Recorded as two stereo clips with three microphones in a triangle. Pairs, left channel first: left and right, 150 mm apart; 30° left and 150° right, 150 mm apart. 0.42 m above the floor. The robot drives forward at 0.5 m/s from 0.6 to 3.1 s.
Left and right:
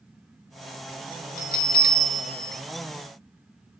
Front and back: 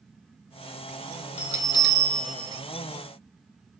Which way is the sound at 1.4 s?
70° left.